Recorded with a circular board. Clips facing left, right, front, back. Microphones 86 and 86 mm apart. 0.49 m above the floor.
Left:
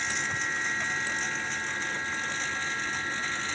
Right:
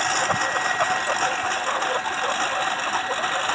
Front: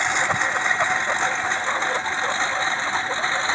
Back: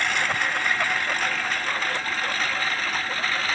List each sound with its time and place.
0.0 s a lawn mower: 70° right; by 3.5 s 65° right